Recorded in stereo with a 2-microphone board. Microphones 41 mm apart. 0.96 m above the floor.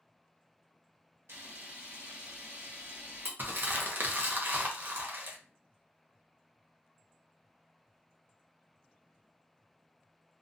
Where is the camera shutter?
75° right (ahead or behind), 1.0 m.